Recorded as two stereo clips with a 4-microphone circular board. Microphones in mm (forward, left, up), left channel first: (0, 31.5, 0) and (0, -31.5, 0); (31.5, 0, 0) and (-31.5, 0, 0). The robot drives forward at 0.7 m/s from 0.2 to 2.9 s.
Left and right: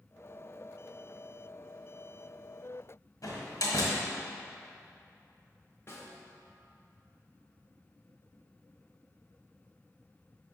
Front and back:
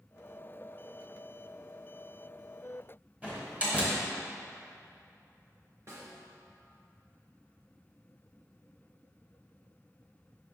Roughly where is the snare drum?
Behind left.